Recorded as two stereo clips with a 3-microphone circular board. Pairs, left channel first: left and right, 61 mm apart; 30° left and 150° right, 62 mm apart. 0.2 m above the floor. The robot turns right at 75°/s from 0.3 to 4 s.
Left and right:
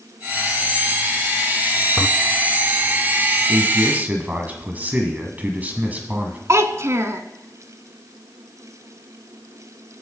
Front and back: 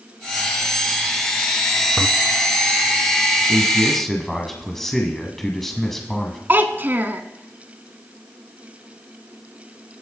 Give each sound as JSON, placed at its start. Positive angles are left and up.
{"t": 2.0, "sound": "a toilet flushing", "azimuth_deg": 135, "distance_m": 0.5}
{"t": 3.5, "sound": "a man speaking", "azimuth_deg": -90, "distance_m": 1.4}
{"t": 6.5, "sound": "a child speaking", "azimuth_deg": -105, "distance_m": 0.9}